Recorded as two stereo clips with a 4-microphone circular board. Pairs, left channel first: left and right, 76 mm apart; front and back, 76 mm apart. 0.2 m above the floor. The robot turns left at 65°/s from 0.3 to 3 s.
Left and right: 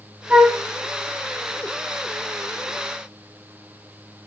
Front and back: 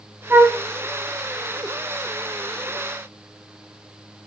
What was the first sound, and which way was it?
A flute, 150° right.